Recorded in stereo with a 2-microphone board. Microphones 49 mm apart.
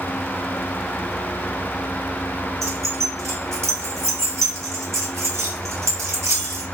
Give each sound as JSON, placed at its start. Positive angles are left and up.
{"t": 2.6, "sound": "keys jangling", "side_deg": -75, "distance_m": 1.5}